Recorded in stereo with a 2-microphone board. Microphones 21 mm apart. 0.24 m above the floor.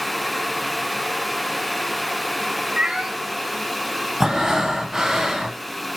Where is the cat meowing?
50° right (ahead or behind), 1.3 m.